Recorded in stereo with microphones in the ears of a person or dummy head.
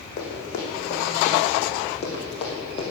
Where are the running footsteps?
40° left (ahead or behind), 5 m; by 2.9 s 25° left (ahead or behind), 3.5 m.